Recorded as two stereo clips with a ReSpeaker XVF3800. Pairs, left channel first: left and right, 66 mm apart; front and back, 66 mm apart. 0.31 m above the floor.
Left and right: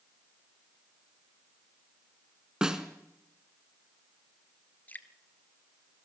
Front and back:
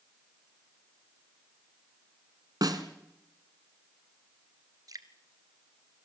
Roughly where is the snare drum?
Behind.